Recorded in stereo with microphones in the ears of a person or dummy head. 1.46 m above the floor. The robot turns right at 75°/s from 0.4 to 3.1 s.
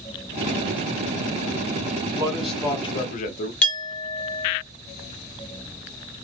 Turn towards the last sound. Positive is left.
turn(degrees=10)  # may be behind; listen again after turning